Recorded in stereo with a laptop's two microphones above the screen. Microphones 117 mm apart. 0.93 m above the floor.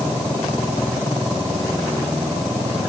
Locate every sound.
Only background noise.